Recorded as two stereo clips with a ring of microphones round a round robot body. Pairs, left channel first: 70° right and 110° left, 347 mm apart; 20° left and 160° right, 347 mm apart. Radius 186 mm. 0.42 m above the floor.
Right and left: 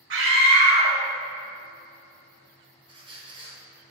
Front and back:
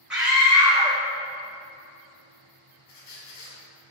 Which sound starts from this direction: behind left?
A scream, at 0.1 s.